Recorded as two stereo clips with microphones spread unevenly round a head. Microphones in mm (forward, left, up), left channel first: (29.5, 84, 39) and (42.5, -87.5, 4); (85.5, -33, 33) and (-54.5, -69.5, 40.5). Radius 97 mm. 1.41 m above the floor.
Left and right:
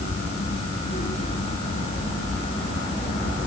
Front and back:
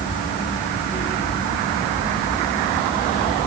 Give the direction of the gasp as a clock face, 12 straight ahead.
I don't hear a gasp.